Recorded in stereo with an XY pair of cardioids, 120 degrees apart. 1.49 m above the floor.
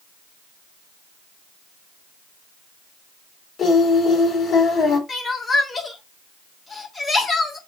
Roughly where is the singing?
Ahead left.